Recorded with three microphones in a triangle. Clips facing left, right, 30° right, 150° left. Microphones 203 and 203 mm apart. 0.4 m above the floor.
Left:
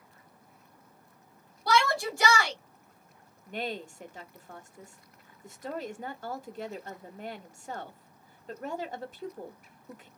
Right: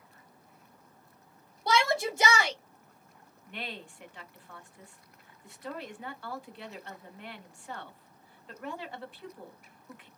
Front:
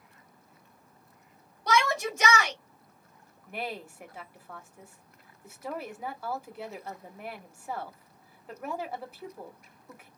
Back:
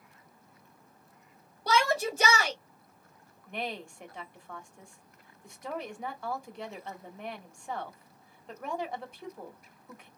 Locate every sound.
1.7 s a shout: 155° right, 1.8 m
3.5 s a woman speaking: 55° left, 1.3 m